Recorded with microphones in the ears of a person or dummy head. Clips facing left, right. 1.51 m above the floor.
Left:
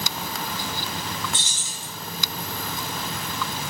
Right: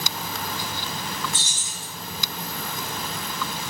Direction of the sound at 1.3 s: 25° left (ahead or behind).